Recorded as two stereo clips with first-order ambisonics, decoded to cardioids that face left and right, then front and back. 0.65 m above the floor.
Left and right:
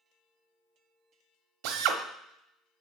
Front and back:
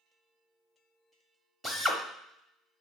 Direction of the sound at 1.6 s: 100° right.